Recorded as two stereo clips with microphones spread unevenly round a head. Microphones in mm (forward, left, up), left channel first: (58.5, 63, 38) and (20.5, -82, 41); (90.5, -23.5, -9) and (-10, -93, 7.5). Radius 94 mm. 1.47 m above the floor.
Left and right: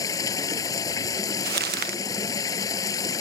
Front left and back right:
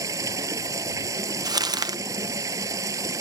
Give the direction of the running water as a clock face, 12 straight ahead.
7 o'clock.